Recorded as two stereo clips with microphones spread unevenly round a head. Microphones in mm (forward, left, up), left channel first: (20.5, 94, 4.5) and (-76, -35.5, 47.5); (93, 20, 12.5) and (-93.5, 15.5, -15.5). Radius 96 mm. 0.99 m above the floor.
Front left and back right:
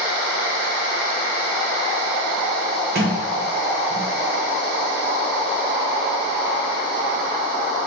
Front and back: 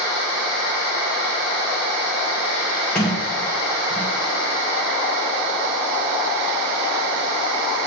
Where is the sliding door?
90° right, 1.3 m.